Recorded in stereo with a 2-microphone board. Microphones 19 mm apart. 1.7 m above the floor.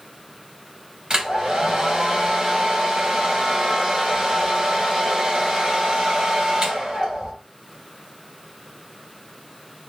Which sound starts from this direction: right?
A hair dryer, at 1.1 s.